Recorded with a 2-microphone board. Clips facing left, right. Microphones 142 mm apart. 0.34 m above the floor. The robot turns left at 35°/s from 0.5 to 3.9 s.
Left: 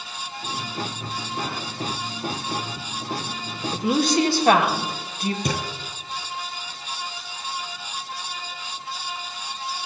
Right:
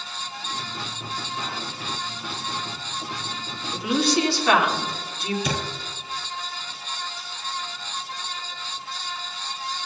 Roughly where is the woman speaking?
Left.